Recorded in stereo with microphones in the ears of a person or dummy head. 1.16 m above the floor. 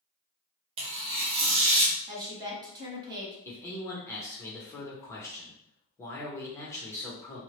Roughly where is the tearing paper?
Right.